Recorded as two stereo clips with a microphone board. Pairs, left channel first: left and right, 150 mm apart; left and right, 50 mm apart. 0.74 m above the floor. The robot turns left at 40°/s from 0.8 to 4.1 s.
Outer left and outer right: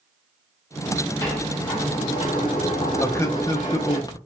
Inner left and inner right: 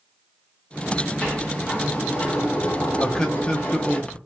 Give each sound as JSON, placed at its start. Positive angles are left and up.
{"t": 1.2, "sound": "a sliding door", "azimuth_deg": 160, "distance_m": 1.7}
{"t": 3.0, "sound": "a man speaking", "side_deg": 15, "distance_m": 0.5}